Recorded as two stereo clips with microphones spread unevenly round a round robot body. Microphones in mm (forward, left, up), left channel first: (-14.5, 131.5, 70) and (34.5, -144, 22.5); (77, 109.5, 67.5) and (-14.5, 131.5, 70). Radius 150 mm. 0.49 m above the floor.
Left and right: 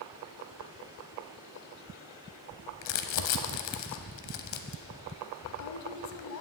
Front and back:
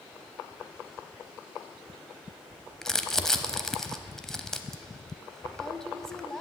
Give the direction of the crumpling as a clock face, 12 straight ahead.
10 o'clock.